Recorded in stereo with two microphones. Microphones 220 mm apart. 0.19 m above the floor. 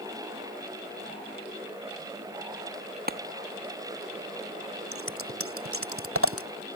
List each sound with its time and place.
3.1 s a clap: 45° right (ahead or behind)
4.9 s scissors: 80° right